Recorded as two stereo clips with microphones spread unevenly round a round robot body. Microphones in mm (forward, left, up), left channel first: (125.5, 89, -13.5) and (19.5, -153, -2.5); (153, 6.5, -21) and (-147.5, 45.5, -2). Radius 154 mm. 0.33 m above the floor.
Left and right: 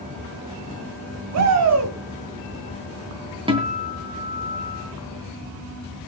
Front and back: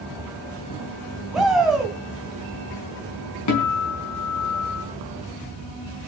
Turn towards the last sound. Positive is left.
turn(degrees=-40)